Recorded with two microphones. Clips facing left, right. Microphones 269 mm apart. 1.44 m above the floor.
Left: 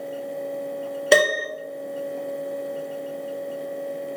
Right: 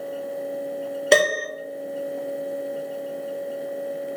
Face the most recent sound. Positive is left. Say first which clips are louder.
# even
turn(degrees=0)  # may be behind; listen again after turning